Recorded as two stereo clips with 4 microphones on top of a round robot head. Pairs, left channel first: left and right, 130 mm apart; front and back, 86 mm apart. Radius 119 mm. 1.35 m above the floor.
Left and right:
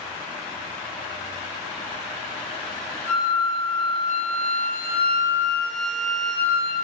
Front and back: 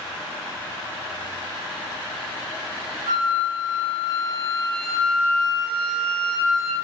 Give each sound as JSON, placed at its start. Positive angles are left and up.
{"t": 3.1, "sound": "a flute", "azimuth_deg": 140, "distance_m": 2.5}